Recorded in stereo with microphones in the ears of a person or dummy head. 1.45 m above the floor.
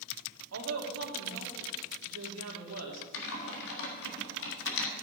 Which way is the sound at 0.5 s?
85° right.